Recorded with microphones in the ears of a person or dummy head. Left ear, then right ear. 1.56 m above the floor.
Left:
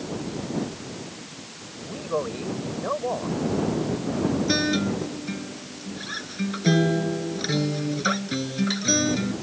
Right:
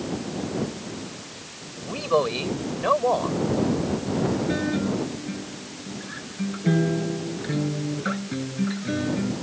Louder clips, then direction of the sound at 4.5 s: Left 2 dB; 85° left.